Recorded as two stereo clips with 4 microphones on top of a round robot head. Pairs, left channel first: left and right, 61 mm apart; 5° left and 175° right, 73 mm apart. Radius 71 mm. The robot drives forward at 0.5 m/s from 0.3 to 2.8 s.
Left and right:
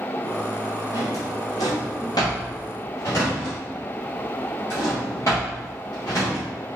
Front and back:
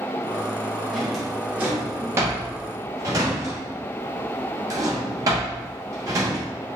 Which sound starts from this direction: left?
A drawer, at 0.9 s.